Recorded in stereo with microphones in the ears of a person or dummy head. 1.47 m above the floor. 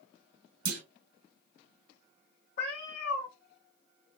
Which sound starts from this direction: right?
A clunk, at 0.7 s.